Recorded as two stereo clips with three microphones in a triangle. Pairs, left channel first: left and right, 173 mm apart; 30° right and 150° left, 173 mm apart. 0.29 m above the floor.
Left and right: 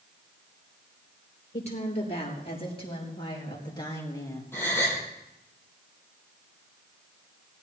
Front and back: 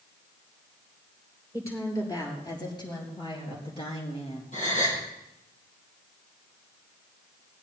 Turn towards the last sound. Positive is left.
turn(degrees=15)